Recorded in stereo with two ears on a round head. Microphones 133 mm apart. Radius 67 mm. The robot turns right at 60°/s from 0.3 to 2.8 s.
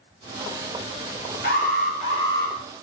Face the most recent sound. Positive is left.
turn(degrees=180)